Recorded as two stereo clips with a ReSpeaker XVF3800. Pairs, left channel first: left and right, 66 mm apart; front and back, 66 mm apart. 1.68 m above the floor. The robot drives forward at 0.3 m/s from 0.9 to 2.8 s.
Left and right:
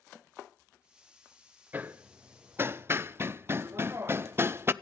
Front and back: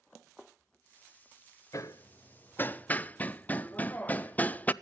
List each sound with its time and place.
1.7 s hammering: 30° right, 0.7 m; by 4.7 s 55° right, 0.5 m